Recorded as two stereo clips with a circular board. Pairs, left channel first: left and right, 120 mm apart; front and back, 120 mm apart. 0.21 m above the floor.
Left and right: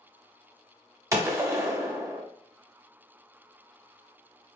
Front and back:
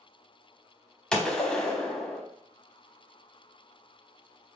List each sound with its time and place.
1.1 s a gunshot: 75° right, 0.6 m